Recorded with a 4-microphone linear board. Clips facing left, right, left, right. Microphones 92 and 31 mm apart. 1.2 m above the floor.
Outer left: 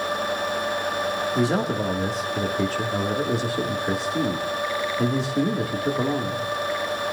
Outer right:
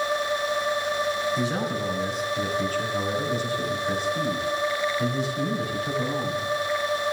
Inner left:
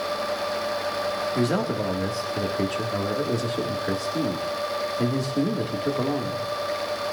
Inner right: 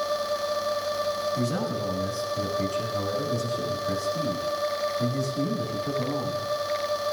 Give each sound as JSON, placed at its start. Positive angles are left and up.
{"t": 1.4, "sound": "a man speaking", "side_deg": 70, "distance_m": 1.8}